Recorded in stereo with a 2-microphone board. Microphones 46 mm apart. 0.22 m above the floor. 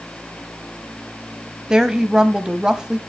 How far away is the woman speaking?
About 1.2 m.